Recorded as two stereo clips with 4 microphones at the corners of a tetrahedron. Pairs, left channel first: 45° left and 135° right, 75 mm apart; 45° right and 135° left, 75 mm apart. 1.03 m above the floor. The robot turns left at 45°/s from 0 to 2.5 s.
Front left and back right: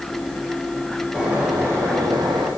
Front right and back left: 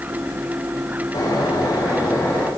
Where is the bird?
55° right, 5 m; by 2.5 s 120° right, 5 m.